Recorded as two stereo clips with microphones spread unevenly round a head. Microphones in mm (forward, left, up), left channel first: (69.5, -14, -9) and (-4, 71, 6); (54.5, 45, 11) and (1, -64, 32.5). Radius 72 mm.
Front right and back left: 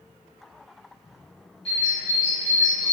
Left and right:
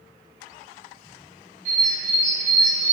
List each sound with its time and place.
1.6 s a bird: 90° right, 1.8 m